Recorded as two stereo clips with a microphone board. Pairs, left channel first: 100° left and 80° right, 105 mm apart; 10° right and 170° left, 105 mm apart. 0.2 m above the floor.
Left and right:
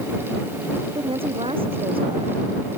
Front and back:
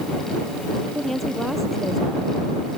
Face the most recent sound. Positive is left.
turn(degrees=-100)